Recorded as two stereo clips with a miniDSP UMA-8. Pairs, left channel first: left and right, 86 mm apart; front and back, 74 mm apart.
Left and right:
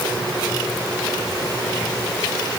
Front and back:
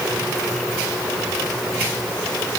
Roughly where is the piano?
No piano in this recording.